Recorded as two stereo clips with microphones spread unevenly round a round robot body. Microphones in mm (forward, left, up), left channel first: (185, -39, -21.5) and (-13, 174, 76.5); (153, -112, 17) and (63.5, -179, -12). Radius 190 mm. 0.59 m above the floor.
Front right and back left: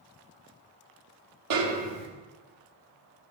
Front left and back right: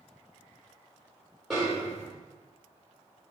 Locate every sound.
1.5 s a snare drum: 140° left, 1.7 m